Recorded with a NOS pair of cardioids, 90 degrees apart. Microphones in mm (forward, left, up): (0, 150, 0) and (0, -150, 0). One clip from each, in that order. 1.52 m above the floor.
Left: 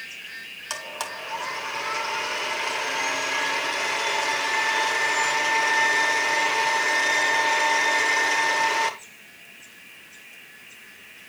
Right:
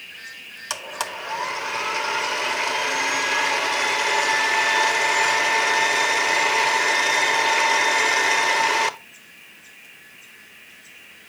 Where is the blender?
25° right, 1.0 m.